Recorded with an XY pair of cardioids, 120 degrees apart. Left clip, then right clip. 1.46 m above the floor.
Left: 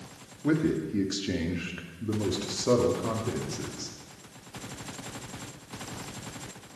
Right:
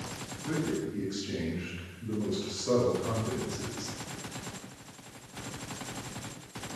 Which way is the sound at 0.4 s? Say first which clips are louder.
Left 6 dB; 70° left.